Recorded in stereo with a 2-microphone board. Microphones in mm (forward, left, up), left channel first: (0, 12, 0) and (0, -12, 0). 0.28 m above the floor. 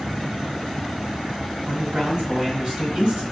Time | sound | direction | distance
1.7 | a man speaking | 45° right (ahead or behind) | 1.8 m